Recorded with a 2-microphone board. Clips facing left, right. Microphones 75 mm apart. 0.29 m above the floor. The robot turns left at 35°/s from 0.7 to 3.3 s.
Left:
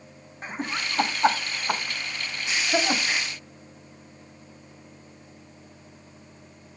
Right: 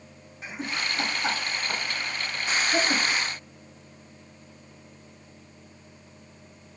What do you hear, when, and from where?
0.4 s laughter: 40° left (ahead or behind), 2.5 m; by 3.3 s 35° left (ahead or behind), 2.5 m